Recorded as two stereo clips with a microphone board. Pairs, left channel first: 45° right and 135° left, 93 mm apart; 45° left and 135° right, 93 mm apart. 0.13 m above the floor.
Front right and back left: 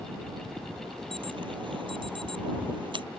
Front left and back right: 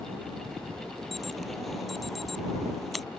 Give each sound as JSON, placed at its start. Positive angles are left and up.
{"t": 1.1, "sound": "an alarm", "azimuth_deg": 135}